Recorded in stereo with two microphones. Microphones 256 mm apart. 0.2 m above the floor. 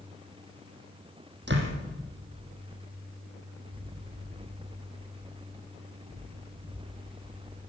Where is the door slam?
45° right (ahead or behind), 5 m.